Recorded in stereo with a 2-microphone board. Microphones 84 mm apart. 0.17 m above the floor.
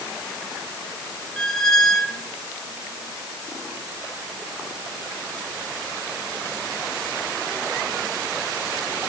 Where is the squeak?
5° left (ahead or behind), 0.6 m.